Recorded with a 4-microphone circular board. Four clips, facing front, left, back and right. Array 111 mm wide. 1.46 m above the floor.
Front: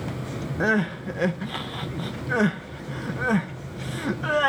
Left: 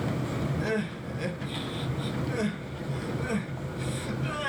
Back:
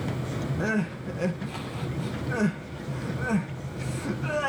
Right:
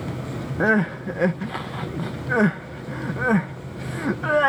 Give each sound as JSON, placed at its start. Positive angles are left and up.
{"t": 0.6, "sound": "crying", "azimuth_deg": -70, "distance_m": 1.1}